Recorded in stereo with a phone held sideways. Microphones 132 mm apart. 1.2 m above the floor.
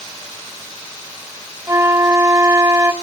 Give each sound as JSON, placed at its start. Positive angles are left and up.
{"t": 1.7, "sound": "a flute", "side_deg": -25, "distance_m": 1.0}